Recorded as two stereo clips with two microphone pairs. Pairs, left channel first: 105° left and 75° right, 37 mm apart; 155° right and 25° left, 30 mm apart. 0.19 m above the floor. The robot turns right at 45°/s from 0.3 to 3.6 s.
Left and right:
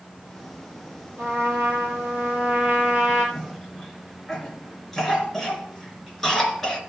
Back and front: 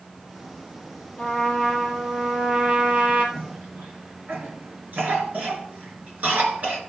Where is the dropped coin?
No dropped coin in this recording.